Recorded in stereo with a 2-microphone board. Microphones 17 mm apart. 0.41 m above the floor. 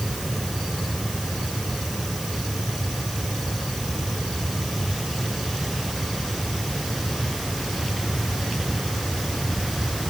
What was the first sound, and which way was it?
Only background noise.